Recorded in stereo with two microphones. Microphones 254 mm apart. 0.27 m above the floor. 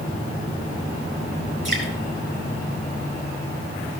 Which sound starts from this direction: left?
Dripping, at 1.6 s.